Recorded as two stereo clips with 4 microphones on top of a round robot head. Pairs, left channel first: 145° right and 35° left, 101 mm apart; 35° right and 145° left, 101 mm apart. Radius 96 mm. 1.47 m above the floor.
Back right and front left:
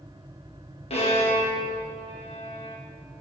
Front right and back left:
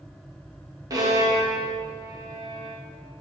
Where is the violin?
160° right, 2.5 m.